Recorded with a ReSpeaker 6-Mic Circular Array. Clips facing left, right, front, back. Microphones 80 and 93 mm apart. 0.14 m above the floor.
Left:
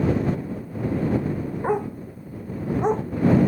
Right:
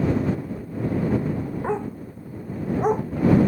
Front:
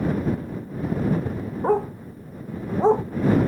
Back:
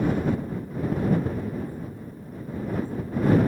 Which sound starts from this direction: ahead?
A dog barking, at 1.6 s.